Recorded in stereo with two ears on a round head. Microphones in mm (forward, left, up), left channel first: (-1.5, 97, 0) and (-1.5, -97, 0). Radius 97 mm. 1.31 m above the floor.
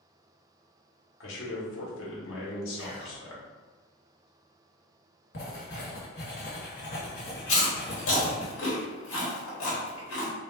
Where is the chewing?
65° left (ahead or behind), 1.2 m.